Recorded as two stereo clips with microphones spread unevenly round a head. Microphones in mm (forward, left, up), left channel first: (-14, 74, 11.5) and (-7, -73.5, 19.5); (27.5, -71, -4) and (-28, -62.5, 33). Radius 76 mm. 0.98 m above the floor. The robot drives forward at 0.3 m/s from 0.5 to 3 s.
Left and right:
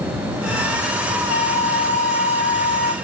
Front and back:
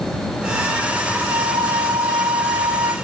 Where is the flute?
140° left; by 3.0 s 145° left.